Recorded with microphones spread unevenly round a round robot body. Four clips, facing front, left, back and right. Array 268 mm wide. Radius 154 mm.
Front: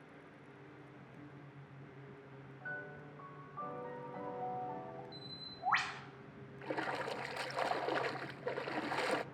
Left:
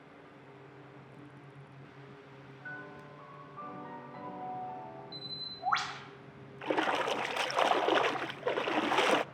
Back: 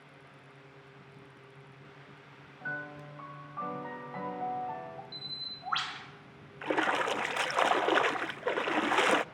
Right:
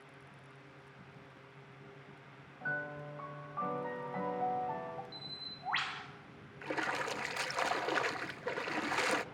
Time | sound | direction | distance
2.6 | a piano | 150° right | 4.5 m
5.1 | a bird | 60° left | 1.1 m
6.6 | a splash | 135° left | 0.5 m